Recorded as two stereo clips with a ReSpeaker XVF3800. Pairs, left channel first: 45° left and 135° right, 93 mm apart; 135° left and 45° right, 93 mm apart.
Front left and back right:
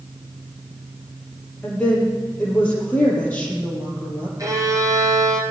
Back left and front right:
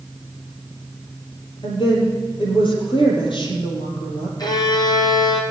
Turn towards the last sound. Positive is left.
turn(degrees=175)